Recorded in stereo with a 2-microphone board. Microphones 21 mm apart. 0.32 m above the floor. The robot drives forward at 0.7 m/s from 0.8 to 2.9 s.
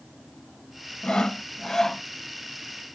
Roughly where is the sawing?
Left.